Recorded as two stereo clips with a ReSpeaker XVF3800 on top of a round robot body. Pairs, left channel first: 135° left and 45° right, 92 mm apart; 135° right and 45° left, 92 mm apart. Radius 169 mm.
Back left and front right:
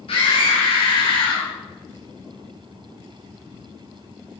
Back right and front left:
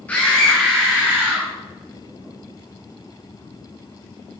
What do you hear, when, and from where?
0.1 s a scream: 150° left, 1.0 m; by 1.5 s 105° left, 1.1 m